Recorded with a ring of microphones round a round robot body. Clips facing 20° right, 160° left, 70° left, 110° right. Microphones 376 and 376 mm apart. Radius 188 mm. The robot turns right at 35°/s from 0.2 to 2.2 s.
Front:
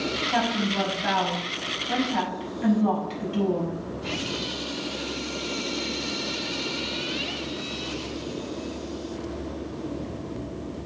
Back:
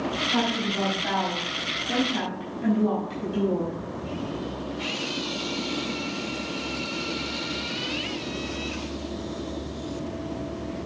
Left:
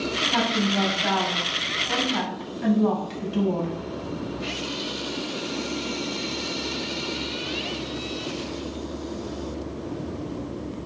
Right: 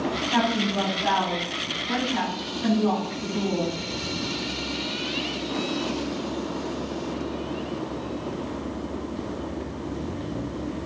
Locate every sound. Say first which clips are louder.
0.3 s a woman speaking: back 1 dB, left 1 dB; 20° right, 5.5 m; by 3.8 s 45° left, 5.5 m